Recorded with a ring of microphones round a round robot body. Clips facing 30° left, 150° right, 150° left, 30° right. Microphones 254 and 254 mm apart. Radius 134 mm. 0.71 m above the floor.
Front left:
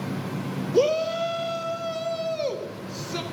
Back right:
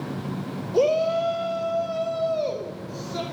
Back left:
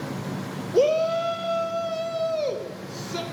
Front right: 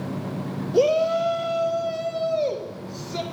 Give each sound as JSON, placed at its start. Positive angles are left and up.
{"t": 0.7, "sound": "a shout", "azimuth_deg": 55, "distance_m": 1.1}